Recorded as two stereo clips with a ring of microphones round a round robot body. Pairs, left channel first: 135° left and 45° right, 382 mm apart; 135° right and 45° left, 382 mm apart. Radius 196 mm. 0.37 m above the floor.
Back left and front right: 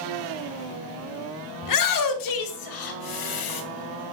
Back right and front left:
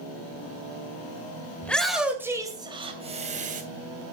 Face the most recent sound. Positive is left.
turn(degrees=115)